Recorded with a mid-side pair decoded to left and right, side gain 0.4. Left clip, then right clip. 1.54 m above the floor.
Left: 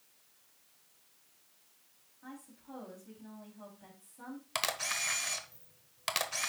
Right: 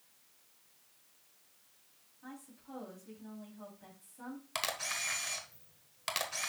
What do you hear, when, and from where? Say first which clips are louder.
2.2 s a woman speaking: left 1 dB; 5° left, 3 m
4.5 s a camera shutter: left 2 dB; 25° left, 1.2 m